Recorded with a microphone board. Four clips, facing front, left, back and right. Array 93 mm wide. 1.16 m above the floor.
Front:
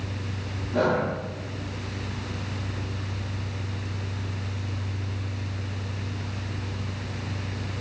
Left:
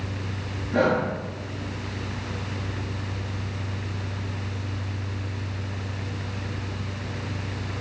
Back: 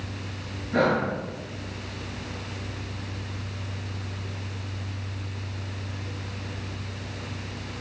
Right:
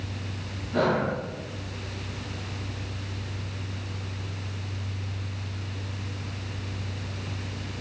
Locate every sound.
0.7 s breathing: 170° left, 8 m